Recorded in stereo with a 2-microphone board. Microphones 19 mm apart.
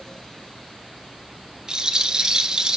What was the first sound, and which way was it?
A rattle, 40° right (ahead or behind).